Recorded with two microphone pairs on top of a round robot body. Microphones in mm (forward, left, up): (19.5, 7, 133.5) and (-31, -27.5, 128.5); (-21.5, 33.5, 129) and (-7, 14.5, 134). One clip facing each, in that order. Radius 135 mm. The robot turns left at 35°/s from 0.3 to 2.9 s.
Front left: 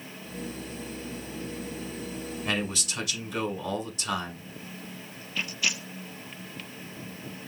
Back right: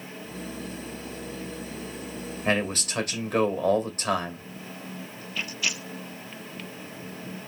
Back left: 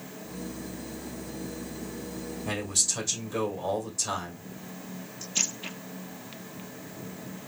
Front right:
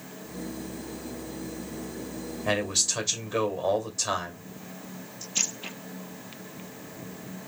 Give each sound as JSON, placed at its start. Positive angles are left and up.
{"t": 2.5, "sound": "a man speaking", "azimuth_deg": -105, "distance_m": 2.0}